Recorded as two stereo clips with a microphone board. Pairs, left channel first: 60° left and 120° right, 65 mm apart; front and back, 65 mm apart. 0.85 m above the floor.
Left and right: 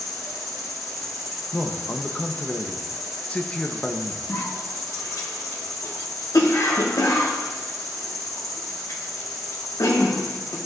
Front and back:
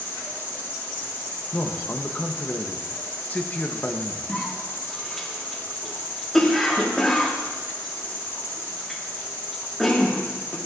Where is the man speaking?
15° left, 0.7 m.